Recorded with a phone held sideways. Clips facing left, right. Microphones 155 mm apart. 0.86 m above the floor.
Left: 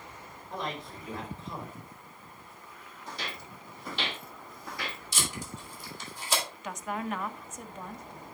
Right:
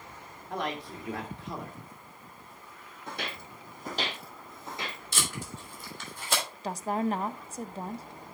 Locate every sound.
0.5 s a man speaking: 70° right (ahead or behind), 2.5 m
3.1 s footsteps: 60° right (ahead or behind), 1.6 m; by 5.0 s 15° right (ahead or behind), 2 m
5.1 s tape being pulled: 60° right (ahead or behind), 3.5 m
6.6 s a woman speaking: 35° right (ahead or behind), 0.5 m